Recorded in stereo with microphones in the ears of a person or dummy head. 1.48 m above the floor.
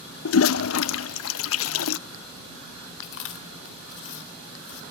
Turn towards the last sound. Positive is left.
turn(degrees=75)  # may be behind; listen again after turning